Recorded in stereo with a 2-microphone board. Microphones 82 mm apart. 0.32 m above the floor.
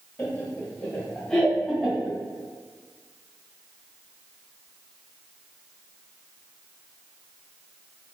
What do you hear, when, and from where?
0.2 s laughter: 25° left (ahead or behind), 1.0 m; by 2.2 s centre (ahead or behind), 1.5 m